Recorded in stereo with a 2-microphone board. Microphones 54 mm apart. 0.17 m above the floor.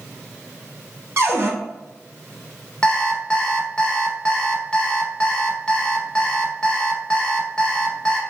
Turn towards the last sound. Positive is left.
turn(degrees=15)  # may be behind; listen again after turning